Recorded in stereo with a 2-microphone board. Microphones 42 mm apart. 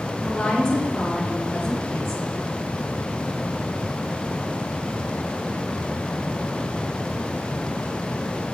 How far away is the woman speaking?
About 3 m.